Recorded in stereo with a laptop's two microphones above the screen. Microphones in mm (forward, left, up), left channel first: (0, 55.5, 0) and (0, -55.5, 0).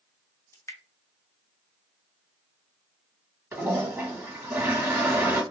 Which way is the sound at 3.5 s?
20° right (ahead or behind).